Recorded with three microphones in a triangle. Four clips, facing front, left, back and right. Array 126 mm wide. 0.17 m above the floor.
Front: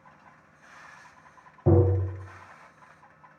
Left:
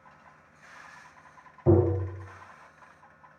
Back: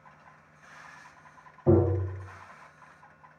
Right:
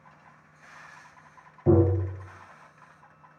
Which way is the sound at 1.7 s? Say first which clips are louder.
Right 1 dB, even; straight ahead.